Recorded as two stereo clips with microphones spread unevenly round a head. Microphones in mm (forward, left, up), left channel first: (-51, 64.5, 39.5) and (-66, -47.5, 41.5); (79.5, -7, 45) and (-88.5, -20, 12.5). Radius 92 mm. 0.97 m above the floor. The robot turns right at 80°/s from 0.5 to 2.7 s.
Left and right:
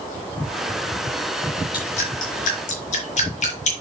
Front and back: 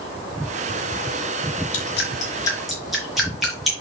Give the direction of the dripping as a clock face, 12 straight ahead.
11 o'clock.